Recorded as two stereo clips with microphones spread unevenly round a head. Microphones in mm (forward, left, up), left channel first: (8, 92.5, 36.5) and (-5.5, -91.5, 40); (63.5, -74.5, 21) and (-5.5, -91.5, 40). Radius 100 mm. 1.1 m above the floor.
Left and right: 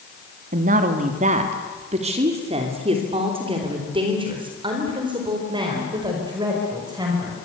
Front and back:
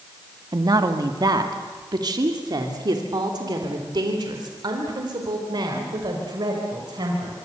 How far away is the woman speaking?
About 2.0 m.